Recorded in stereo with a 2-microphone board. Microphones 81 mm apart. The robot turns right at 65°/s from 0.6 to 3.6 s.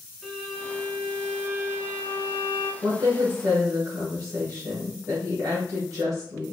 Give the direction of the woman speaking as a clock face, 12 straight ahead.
3 o'clock.